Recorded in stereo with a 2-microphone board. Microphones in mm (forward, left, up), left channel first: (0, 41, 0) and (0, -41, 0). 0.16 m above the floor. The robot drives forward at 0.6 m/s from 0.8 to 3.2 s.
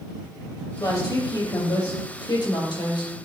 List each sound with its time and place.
0.8 s a woman speaking: 55° left (ahead or behind), 4.5 m; by 3.1 s 65° left (ahead or behind), 4 m